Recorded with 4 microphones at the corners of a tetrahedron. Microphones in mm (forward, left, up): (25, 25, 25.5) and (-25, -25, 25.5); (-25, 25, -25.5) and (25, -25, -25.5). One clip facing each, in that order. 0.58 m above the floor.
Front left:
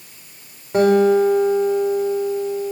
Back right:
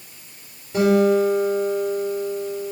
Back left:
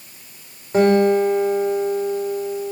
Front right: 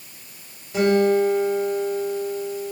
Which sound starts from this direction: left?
A guitar, at 0.7 s.